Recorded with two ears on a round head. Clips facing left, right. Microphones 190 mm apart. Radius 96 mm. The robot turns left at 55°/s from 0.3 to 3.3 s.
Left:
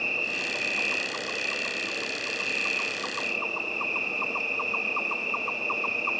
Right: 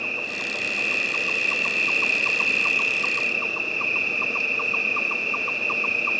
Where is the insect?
10° left; by 6.2 s 155° right.